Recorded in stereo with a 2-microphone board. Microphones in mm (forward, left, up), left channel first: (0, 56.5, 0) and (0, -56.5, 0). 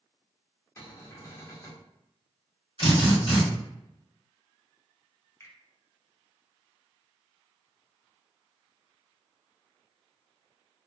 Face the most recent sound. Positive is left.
turn(degrees=25)  # may be behind; listen again after turning